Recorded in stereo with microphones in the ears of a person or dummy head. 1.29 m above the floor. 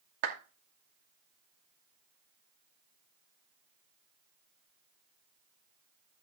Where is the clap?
55° right (ahead or behind), 2.5 m.